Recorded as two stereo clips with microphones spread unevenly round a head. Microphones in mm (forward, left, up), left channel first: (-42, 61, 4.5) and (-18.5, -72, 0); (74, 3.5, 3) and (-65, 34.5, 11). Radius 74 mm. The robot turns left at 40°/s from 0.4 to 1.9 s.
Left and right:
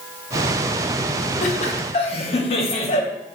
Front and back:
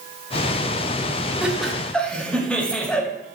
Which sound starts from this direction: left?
Laughter, at 1.4 s.